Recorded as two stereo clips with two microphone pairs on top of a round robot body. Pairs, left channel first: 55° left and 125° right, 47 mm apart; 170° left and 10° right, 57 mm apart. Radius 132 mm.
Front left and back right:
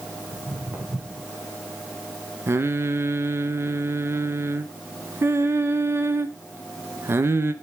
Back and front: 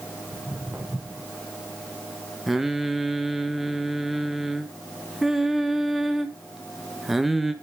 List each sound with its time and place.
0.3 s footsteps: 75° right, 5 m
2.5 s singing: 95° right, 1.4 m